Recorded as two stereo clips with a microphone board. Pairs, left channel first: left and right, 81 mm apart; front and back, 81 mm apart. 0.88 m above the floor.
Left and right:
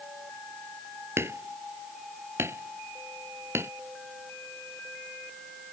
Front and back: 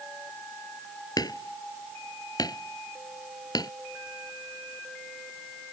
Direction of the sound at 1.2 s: 35° right.